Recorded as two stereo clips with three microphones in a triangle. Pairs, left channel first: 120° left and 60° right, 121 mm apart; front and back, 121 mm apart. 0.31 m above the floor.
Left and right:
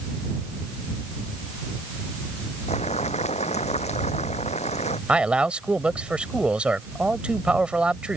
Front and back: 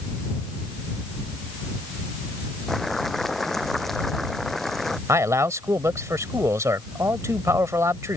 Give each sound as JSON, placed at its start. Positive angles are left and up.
{"t": 2.7, "sound": "boiling", "azimuth_deg": 90}
{"t": 5.1, "sound": "a man speaking", "azimuth_deg": -135}